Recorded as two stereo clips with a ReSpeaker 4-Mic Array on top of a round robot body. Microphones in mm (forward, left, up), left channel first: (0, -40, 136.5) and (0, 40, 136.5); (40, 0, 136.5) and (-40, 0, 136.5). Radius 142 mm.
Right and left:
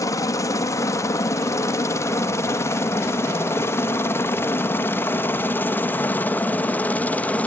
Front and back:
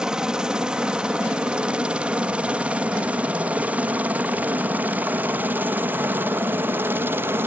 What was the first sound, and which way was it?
A helicopter, 105° right.